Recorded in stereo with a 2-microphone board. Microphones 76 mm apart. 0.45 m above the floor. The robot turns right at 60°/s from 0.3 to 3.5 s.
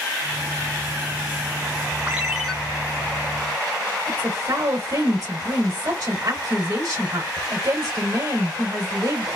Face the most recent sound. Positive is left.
turn(degrees=-60)  # may be behind; listen again after turning